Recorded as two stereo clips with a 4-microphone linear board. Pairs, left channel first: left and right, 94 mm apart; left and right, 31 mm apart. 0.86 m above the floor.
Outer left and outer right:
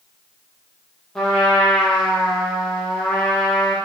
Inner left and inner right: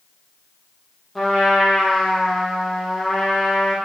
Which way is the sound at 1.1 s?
5° left (ahead or behind).